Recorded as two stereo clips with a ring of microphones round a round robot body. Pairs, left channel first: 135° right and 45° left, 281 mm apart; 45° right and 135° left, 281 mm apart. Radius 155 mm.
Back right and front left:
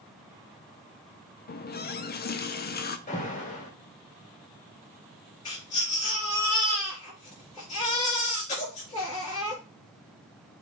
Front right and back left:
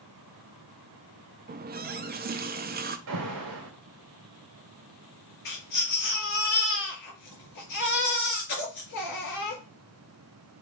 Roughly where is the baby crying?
Right.